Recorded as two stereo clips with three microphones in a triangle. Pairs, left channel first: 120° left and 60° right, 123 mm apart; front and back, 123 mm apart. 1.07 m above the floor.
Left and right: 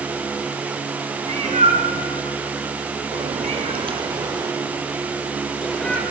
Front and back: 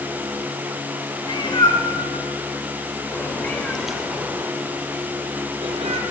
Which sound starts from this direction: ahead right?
A cat meowing, at 1.2 s.